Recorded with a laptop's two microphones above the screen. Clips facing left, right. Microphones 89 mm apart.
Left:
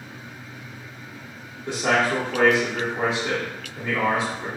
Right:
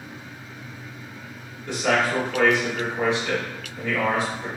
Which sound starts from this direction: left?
A man speaking, at 1.7 s.